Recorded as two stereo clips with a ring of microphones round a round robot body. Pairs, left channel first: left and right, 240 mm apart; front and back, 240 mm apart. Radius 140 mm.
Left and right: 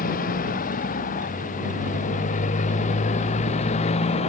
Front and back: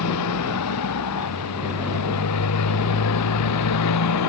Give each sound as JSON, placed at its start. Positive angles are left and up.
{"t": 0.0, "sound": "a motorcycle", "azimuth_deg": 30}